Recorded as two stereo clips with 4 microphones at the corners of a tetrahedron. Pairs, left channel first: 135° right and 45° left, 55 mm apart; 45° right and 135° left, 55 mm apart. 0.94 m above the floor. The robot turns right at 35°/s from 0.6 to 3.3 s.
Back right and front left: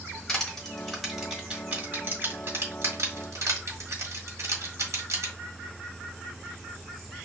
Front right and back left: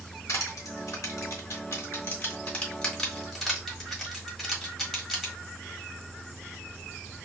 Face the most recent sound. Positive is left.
turn(degrees=45)